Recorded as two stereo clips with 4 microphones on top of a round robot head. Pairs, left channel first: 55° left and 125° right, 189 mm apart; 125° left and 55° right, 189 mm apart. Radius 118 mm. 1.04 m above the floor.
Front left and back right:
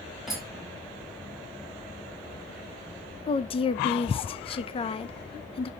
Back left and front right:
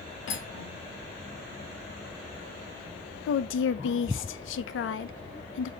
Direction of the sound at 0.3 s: 145° left.